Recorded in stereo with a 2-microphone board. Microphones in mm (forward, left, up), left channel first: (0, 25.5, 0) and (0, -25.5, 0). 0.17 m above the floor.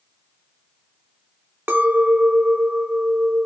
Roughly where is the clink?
Right.